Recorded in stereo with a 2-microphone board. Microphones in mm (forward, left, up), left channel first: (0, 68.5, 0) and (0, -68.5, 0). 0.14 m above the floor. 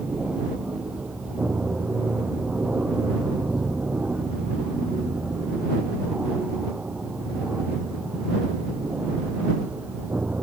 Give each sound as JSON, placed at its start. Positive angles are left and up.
{"t": 0.0, "sound": "an aircraft", "side_deg": -10}